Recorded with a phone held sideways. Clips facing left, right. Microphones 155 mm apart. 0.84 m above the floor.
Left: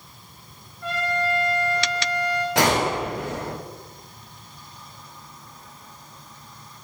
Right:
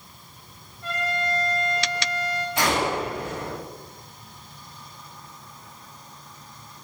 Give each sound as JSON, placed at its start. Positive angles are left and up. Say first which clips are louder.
{"t": 0.8, "sound": "a trumpet", "louder": "left 3 dB", "side_deg": 70, "distance_m": 4.0}
{"t": 2.5, "sound": "a gunshot", "louder": "left 2 dB", "side_deg": 85, "distance_m": 2.5}